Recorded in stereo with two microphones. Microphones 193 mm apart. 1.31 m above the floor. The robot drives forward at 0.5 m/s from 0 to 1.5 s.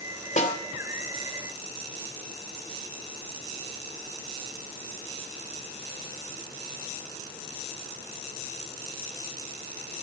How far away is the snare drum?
About 3 m.